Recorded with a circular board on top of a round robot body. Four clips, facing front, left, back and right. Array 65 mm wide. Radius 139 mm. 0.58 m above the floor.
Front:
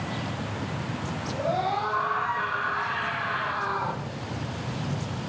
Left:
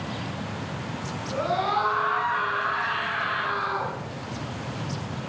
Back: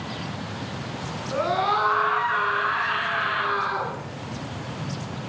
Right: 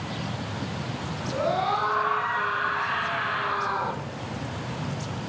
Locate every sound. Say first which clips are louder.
1.3 s a scream: even, back 5 dB; 170° left, 8 m; by 3.9 s 165° left, 9.5 m